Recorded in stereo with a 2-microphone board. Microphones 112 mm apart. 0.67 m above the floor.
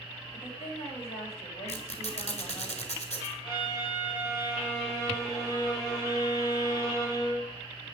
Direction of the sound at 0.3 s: 55° left (ahead or behind).